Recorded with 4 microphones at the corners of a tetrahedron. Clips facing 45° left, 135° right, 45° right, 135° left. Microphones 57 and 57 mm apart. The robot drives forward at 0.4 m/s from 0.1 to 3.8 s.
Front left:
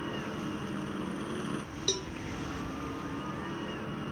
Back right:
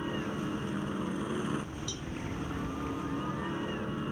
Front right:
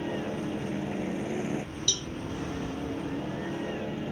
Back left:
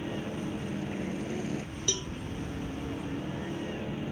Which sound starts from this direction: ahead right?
A helicopter, at 0.0 s.